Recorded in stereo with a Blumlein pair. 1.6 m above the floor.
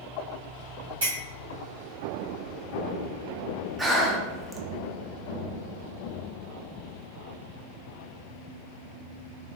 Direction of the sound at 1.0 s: 65° right.